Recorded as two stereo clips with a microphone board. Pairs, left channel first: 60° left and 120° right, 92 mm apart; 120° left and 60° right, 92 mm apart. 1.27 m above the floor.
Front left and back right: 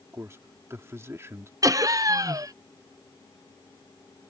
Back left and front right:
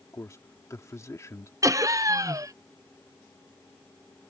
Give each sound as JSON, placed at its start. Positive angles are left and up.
{"t": 0.1, "sound": "a man speaking", "azimuth_deg": 180}
{"t": 1.6, "sound": "laughter", "azimuth_deg": -90}